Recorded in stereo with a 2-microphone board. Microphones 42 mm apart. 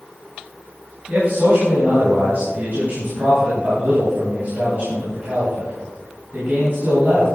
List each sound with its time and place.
1.1 s a man speaking: 45° right (ahead or behind), 4.5 m